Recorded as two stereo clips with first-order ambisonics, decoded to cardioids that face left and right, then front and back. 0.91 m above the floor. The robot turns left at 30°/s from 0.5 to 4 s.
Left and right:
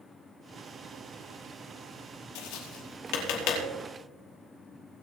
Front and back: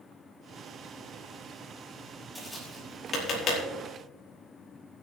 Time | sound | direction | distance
2.4 | tapping | 90° left | 5 m